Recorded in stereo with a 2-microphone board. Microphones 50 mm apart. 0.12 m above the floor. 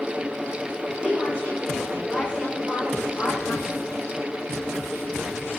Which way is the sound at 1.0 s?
20° right (ahead or behind).